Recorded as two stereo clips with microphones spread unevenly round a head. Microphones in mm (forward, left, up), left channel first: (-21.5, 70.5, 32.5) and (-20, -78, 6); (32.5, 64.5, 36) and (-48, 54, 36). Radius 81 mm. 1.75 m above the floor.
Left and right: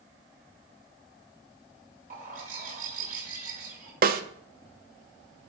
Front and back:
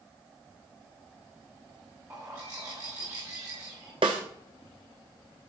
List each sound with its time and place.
2.1 s a bird: 110° right, 1.9 m
4.0 s a snare drum: 120° right, 0.7 m